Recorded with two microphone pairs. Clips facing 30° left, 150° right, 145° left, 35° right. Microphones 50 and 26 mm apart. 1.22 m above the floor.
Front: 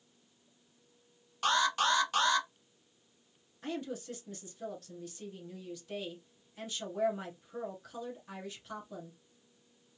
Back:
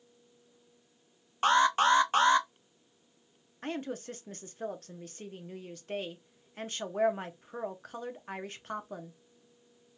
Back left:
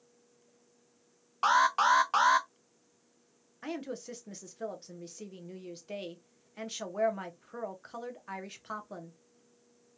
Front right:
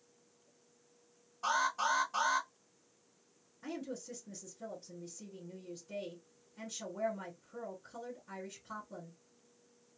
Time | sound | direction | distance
1.4 | an alarm | 160° left | 0.7 m
3.6 | a woman speaking | 175° left | 0.8 m